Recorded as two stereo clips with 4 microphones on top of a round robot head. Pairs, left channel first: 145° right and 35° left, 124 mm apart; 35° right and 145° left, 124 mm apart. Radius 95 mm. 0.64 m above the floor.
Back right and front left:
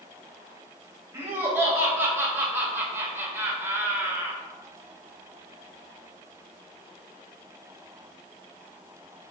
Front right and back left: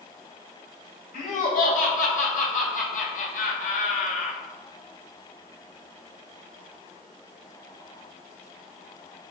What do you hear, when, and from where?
1.1 s laughter: 35° right, 4.5 m